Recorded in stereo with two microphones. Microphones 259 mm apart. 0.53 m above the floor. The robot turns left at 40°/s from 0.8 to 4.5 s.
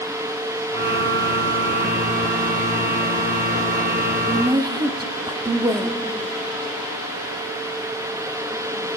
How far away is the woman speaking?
About 0.9 m.